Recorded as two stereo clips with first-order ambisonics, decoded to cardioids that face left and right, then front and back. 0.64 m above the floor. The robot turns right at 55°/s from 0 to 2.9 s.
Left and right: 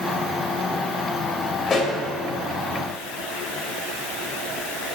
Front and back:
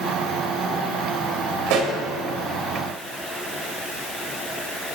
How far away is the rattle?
I don't hear a rattle.